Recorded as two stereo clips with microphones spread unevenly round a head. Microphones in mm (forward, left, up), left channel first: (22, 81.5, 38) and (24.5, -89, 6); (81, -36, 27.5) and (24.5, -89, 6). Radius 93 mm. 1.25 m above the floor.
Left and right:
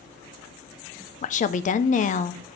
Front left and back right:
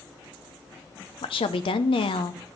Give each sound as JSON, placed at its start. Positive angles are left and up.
{"t": 1.2, "sound": "a woman speaking", "azimuth_deg": 45, "distance_m": 0.7}